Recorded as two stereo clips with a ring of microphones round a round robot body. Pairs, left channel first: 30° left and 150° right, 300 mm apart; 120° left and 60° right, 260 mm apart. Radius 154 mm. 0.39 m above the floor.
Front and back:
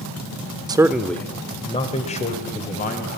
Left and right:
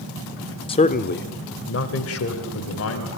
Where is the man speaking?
155° left, 0.8 m; by 3.2 s 90° left, 2.5 m.